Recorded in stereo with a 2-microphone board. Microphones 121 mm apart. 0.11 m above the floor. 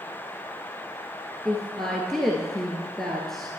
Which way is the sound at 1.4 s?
5° left (ahead or behind).